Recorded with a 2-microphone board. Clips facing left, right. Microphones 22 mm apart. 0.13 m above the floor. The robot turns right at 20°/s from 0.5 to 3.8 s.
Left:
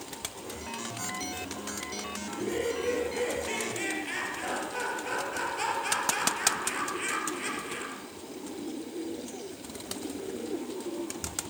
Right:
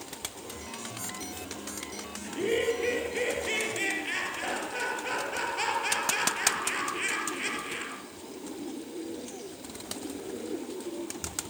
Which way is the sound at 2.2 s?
50° right.